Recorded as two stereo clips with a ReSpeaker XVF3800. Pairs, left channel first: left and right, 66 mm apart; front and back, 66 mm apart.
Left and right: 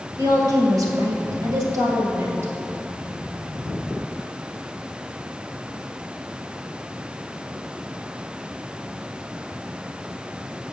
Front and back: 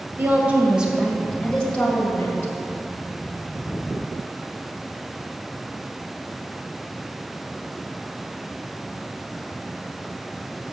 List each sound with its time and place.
0.2 s a woman speaking: 120° right, 2 m; by 2.5 s 50° right, 2.5 m